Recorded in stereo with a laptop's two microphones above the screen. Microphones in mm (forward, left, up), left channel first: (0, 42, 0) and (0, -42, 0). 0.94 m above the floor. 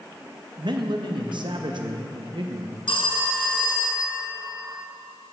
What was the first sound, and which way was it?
A man speaking, 65° right (ahead or behind).